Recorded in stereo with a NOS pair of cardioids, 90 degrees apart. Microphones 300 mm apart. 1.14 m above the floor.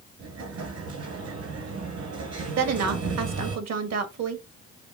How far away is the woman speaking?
About 1.4 m.